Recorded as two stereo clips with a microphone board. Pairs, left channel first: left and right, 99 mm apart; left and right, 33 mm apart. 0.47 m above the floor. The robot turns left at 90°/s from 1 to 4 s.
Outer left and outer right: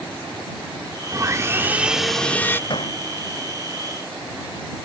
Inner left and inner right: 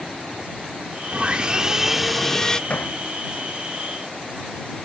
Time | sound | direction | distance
1.1 | sawing | 95° right | ?
2.7 | hammering | 50° left (ahead or behind) | ?